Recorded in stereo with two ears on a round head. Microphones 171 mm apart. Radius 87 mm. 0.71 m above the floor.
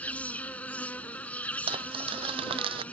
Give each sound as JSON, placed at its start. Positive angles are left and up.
{"t": 0.0, "sound": "an insect", "side_deg": 10}
{"t": 1.7, "sound": "crumpling", "side_deg": -30}